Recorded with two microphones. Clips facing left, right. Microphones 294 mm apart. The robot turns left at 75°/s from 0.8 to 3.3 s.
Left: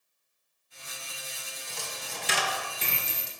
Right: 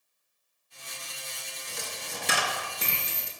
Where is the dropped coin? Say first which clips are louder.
Right 2 dB; 20° right (ahead or behind), 0.6 m; by 3.3 s 25° right (ahead or behind), 0.6 m.